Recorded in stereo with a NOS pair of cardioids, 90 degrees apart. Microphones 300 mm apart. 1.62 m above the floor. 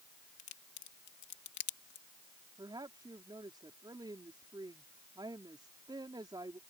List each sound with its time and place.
0.4 s a crack: 70° left
2.6 s a woman speaking: 15° right